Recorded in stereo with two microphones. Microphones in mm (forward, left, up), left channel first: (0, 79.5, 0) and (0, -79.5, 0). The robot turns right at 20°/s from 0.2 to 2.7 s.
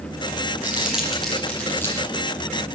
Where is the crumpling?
10° right (ahead or behind), 6 m; by 2.1 s 20° left (ahead or behind), 6 m.